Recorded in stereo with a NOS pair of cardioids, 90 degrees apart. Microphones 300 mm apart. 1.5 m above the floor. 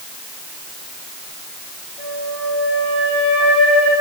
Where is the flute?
5° right, 6 m.